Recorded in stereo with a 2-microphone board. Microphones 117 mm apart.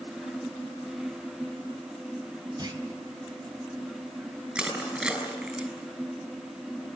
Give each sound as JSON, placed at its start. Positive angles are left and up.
{"t": 2.6, "sound": "a clunk", "side_deg": -35, "distance_m": 2.5}
{"t": 4.5, "sound": "crushing", "side_deg": -10, "distance_m": 6.5}